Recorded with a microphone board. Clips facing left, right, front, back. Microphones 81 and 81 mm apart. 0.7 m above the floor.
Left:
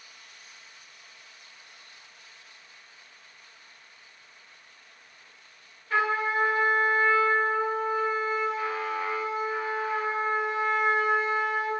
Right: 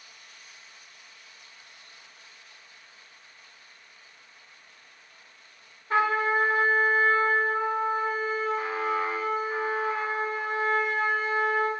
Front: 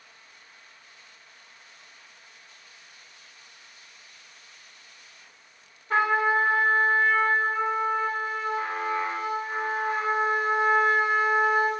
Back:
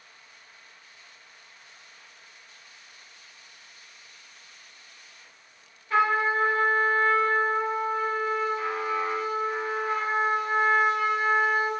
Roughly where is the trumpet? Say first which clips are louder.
Right 2 dB, front 1 dB; ahead right.